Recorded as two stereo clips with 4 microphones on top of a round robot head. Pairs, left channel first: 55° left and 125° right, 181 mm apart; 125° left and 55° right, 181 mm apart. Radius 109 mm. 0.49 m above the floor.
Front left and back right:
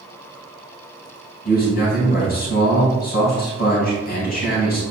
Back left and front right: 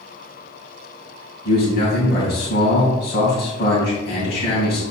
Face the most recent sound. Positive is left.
turn(degrees=95)